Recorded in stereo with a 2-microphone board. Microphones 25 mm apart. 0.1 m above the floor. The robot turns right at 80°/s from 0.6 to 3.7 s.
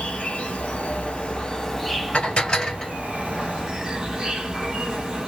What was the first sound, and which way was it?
An insect, 70° left.